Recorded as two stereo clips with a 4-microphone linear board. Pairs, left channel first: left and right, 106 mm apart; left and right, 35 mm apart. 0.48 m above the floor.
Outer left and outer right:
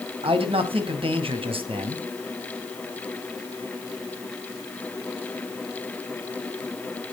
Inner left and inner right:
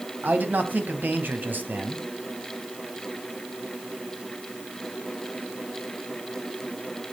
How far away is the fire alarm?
I don't hear a fire alarm.